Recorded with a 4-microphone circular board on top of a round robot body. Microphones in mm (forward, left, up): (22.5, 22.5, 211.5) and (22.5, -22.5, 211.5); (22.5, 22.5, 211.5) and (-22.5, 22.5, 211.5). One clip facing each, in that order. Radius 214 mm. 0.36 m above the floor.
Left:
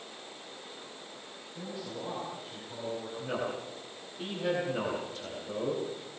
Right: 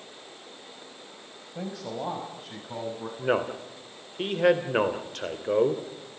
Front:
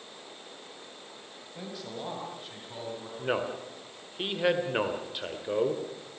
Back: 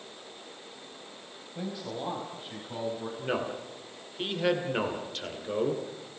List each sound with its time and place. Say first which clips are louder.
1.6 s a man speaking: right 6 dB, back 4 dB; 95° right, 4.5 m; by 3.1 s 105° right, 6.5 m
3.2 s a man speaking: right 10 dB, front 3 dB; 75° right, 2.5 m